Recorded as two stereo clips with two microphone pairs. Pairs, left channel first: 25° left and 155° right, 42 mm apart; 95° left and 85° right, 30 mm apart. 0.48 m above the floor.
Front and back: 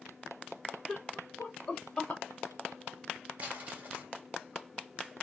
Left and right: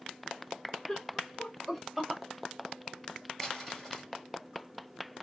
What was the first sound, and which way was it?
Laughter, 125° left.